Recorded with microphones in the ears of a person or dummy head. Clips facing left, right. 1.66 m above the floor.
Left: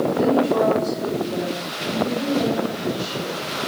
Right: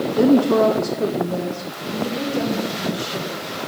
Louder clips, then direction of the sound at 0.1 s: Right 6 dB; 60° right (ahead or behind).